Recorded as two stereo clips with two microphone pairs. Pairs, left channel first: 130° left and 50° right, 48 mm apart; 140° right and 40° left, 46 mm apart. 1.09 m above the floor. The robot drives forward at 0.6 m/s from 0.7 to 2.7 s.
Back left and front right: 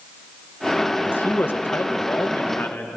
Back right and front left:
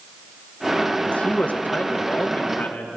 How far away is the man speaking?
About 0.7 m.